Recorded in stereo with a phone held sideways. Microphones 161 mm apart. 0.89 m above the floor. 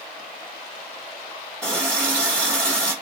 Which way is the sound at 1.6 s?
5° left (ahead or behind).